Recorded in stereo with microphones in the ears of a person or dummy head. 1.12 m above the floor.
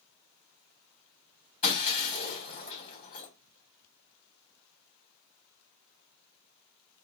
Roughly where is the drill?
No drill in this recording.